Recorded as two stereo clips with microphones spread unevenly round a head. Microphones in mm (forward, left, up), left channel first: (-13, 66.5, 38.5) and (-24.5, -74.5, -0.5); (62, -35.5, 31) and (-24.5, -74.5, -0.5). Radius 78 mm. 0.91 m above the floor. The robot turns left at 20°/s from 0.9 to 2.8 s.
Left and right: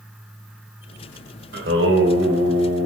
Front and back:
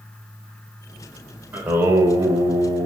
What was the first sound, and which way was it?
Singing, 80° right.